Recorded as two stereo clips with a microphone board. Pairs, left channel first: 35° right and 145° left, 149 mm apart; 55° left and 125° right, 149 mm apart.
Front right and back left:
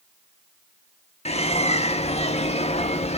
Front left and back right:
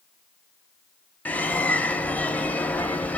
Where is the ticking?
No ticking in this recording.